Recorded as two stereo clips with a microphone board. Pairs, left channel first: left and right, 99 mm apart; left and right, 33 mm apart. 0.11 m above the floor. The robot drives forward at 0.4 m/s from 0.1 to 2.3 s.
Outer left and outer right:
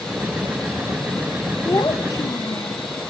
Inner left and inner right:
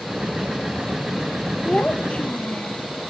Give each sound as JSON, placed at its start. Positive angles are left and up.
{"t": 1.6, "sound": "a child speaking", "side_deg": 35, "distance_m": 1.6}